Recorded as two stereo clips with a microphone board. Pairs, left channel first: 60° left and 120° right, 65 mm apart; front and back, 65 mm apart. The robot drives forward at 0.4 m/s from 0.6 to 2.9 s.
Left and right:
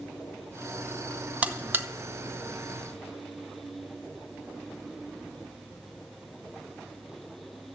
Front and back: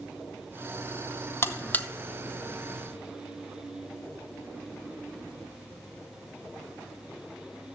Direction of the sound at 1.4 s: 55° right.